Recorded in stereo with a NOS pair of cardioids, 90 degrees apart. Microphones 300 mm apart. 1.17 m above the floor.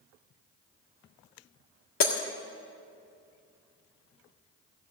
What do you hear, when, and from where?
2.0 s breaking glass: 45° left, 1.7 m